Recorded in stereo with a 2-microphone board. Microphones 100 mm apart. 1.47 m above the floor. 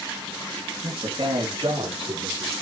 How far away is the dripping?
No dripping in this recording.